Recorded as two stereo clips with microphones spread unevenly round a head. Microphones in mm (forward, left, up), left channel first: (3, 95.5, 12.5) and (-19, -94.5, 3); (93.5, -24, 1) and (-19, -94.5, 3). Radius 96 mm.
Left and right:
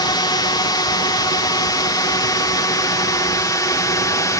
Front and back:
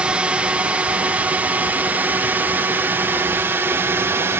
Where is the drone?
135° left; by 4.4 s 145° left.